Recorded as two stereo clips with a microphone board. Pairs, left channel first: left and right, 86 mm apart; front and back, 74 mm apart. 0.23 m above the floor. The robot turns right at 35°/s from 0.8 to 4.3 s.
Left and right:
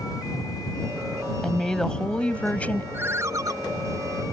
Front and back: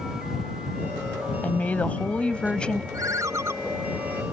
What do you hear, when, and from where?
1.4 s a woman speaking: 10° left; by 2.8 s 60° left
2.9 s a ringtone: 150° right; by 3.5 s 130° right